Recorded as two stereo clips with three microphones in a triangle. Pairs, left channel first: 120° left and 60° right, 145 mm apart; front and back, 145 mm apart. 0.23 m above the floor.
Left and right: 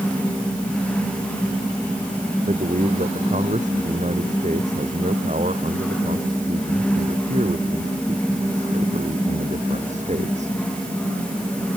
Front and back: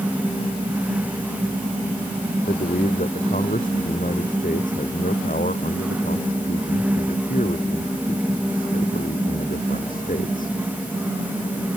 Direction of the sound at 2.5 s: 25° right.